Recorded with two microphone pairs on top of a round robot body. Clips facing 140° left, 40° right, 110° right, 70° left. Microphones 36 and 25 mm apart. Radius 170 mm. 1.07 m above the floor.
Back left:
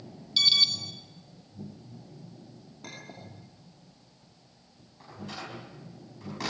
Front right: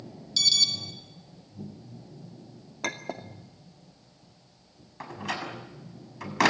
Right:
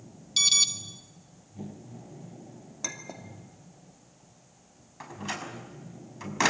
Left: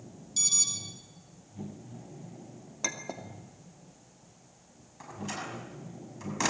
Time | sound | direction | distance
0.4 | an alarm | 150° right | 2.0 m
2.8 | a clink | 5° right | 2.5 m
5.0 | a door slam | 40° right | 6 m